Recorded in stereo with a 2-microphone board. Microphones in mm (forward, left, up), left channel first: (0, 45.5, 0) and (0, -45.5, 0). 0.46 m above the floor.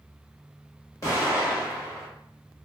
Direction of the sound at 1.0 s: 35° left (ahead or behind).